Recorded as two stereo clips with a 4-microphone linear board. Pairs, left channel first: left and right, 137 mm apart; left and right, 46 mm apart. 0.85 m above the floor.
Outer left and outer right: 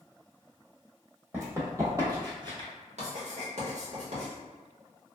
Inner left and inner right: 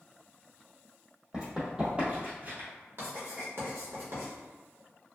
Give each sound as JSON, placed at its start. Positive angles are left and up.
{"t": 1.3, "sound": "running footsteps", "side_deg": -20, "distance_m": 1.7}
{"t": 3.0, "sound": "writing", "side_deg": -55, "distance_m": 1.2}